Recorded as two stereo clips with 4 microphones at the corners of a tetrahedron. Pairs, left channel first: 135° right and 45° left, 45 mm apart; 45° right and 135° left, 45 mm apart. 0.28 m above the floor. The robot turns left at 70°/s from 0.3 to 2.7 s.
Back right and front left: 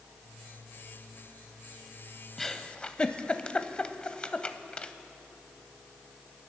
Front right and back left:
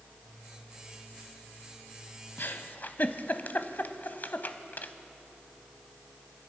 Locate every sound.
2.4 s a giggle: 50° right, 0.6 m; by 4.9 s 70° right, 0.6 m